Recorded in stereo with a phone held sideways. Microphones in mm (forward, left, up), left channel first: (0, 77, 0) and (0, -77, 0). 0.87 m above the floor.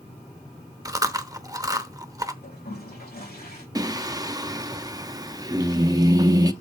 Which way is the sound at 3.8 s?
25° right (ahead or behind).